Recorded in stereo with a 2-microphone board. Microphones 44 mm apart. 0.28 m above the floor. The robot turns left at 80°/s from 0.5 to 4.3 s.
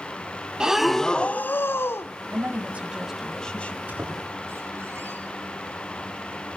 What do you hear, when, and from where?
0.6 s breathing: 160° right, 0.7 m; by 2.1 s 80° left, 0.7 m
2.3 s a woman speaking: 110° right, 1.7 m; by 3.8 s 130° left, 1.7 m
3.9 s a squeak: 35° right (ahead or behind), 9 m; by 5.2 s 70° right (ahead or behind), 9 m